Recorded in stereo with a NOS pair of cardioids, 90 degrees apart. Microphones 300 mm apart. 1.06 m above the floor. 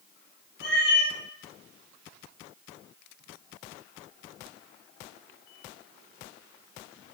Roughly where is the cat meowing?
Ahead left.